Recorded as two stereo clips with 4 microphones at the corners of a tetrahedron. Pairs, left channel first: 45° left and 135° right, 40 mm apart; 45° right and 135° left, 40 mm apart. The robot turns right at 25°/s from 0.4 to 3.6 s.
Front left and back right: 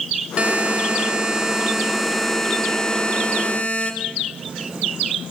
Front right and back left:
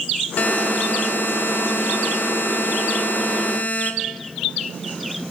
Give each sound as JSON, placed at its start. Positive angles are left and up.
{"t": 0.4, "sound": "a buzzer", "azimuth_deg": -85, "distance_m": 2.0}